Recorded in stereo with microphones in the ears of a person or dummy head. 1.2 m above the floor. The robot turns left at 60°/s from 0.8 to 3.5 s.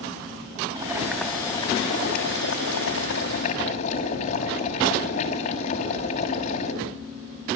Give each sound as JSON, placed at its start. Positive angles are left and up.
{"t": 0.8, "sound": "boiling", "azimuth_deg": -155, "distance_m": 6.5}